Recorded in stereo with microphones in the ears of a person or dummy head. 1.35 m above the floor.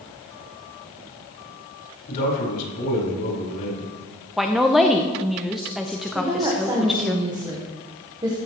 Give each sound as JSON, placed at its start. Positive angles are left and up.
{"t": 2.1, "sound": "a man speaking", "side_deg": 55, "distance_m": 4.5}
{"t": 4.4, "sound": "a woman speaking", "side_deg": 0, "distance_m": 0.6}
{"t": 6.2, "sound": "a woman speaking", "side_deg": -20, "distance_m": 1.4}